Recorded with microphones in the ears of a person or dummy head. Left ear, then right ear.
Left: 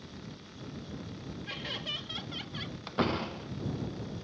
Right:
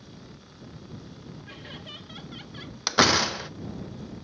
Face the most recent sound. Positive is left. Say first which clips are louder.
# right 12 dB
turn(degrees=-60)  # may be behind; listen again after turning